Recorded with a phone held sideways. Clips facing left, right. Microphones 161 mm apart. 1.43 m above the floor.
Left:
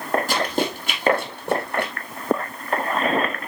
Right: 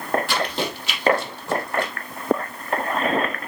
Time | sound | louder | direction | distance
0.3 | running footsteps | left 2 dB | 40° left (ahead or behind) | 3 m